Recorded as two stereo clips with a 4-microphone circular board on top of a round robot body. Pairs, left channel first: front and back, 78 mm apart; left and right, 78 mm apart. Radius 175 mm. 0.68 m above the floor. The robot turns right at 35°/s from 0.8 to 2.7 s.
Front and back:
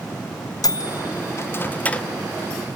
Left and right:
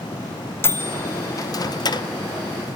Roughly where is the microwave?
Ahead left.